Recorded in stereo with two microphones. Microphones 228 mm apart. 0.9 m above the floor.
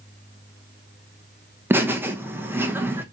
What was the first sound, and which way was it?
Laughter, 10° right (ahead or behind).